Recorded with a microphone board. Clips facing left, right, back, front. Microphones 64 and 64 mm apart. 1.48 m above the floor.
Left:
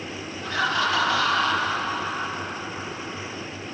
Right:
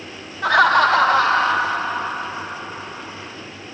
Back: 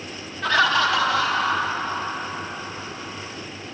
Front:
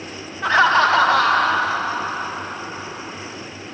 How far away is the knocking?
I don't hear knocking.